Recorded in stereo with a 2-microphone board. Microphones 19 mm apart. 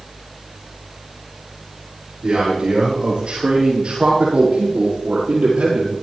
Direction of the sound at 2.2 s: 50° right (ahead or behind).